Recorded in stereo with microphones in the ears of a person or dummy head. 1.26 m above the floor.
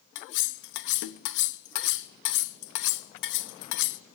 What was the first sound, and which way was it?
Cutlery clinking, 65° left (ahead or behind).